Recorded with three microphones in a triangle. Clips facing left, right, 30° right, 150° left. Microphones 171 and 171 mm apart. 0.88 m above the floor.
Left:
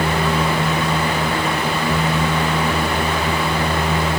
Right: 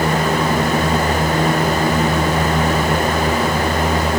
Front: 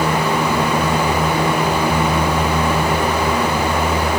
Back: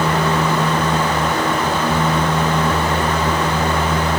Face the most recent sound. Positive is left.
No sound to turn to.